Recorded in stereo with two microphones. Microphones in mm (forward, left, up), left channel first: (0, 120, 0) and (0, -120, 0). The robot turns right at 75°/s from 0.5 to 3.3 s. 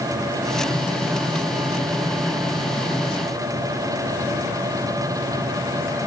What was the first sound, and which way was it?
Only background noise.